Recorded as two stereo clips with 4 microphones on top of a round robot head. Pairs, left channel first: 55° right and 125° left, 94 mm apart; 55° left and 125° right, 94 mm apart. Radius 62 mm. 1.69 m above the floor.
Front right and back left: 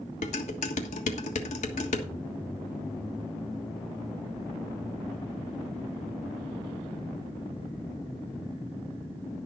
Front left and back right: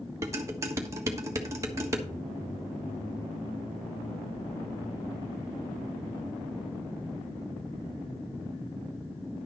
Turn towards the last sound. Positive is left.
turn(degrees=-65)